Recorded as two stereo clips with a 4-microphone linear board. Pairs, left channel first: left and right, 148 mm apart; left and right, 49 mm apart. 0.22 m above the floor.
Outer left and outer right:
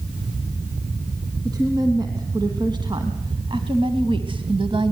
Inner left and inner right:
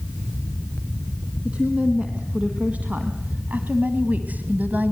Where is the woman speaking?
25° right (ahead or behind), 3 m; by 4.9 s 35° right (ahead or behind), 1.7 m.